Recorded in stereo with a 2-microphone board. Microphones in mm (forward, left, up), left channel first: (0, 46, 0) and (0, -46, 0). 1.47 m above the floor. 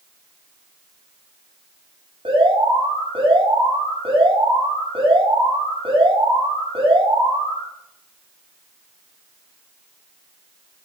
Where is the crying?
I don't hear crying.